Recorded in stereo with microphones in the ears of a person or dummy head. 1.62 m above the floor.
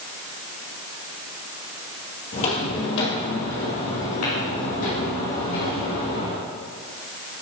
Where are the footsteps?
50° left (ahead or behind), 2.5 m.